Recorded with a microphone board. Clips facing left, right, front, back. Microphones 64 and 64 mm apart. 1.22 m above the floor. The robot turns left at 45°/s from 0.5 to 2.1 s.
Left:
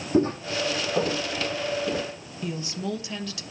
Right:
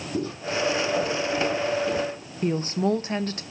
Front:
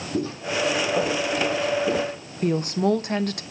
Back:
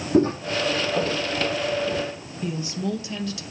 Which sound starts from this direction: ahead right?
A woman speaking, at 2.4 s.